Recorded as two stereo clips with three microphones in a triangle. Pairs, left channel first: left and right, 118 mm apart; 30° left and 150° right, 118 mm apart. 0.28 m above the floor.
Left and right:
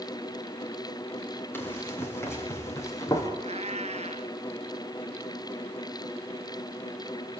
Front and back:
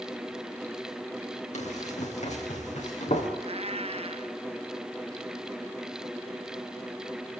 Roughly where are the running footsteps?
Ahead.